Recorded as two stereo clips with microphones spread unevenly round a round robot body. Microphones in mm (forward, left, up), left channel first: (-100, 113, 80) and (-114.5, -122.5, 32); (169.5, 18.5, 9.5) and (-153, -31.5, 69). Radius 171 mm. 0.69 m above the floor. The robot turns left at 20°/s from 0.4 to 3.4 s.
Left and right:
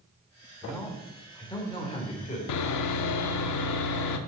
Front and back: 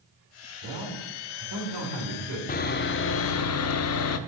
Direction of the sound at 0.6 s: Straight behind.